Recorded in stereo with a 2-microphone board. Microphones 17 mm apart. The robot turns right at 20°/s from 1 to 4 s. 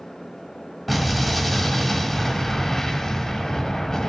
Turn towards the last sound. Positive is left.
turn(degrees=75)